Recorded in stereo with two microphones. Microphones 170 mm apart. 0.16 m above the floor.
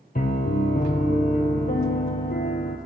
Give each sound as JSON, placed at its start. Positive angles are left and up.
{"t": 0.1, "sound": "a piano", "side_deg": 60, "distance_m": 0.7}